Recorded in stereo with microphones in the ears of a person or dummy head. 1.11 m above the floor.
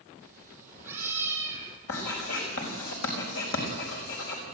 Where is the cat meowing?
15° right (ahead or behind), 5.5 m.